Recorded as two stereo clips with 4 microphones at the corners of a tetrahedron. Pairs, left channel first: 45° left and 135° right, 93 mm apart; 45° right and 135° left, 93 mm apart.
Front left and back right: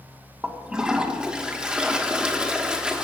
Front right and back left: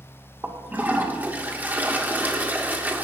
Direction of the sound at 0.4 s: 165° left.